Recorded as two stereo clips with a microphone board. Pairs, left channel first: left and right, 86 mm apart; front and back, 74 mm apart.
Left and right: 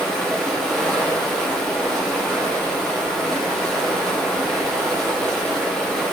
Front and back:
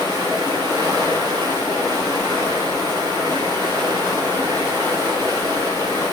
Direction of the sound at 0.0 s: 175° left.